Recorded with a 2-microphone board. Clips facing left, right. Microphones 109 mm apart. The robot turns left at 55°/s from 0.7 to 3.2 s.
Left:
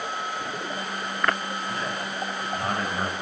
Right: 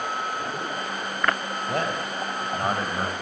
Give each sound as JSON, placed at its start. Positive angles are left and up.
{"t": 1.7, "sound": "a man speaking", "azimuth_deg": -100, "distance_m": 3.0}